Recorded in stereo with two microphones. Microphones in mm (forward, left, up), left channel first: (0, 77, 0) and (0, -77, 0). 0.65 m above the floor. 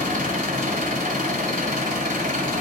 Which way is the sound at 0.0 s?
60° right (ahead or behind).